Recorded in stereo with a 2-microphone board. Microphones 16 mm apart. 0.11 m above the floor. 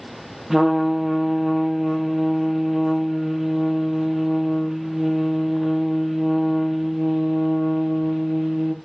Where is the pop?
No pop in this recording.